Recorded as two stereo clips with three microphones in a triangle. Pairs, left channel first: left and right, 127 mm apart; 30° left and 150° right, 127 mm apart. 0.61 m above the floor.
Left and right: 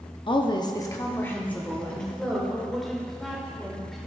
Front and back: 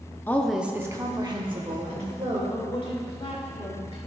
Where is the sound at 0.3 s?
90° left, 0.7 m; by 2.4 s 175° left, 2 m.